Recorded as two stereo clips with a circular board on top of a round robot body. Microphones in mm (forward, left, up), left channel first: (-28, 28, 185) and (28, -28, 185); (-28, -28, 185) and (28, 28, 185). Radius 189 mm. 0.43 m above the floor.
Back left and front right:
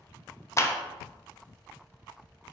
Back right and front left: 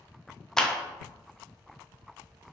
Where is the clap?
145° left, 0.5 m.